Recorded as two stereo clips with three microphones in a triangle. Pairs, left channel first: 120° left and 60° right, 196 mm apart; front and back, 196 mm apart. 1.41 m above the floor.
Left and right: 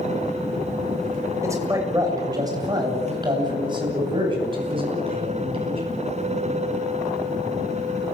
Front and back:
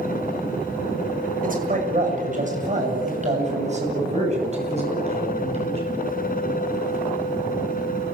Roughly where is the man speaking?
Behind right.